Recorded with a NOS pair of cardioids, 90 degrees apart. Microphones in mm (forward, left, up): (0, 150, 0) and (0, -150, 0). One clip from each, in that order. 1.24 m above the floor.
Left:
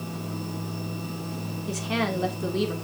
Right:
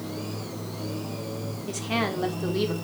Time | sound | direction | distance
1.7 | a woman speaking | 5° right | 3 m